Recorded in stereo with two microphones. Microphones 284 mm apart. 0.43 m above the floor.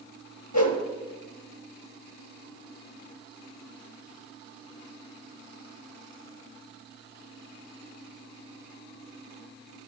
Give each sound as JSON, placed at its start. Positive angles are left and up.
{"t": 0.5, "sound": "a whoosh", "side_deg": 75, "distance_m": 1.3}